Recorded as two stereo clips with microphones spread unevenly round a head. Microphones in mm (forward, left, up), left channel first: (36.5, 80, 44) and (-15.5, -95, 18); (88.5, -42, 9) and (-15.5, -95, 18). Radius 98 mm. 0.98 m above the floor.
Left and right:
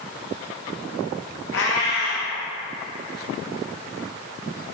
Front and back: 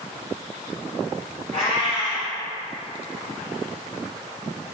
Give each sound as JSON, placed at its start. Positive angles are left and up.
{"t": 1.5, "sound": "a cat meowing", "azimuth_deg": 95, "distance_m": 0.5}